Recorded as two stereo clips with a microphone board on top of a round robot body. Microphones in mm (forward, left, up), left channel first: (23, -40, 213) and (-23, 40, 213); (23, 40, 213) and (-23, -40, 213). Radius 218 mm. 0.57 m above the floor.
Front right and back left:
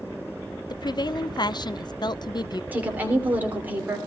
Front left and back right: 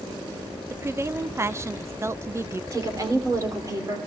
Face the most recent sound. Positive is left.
turn(degrees=-170)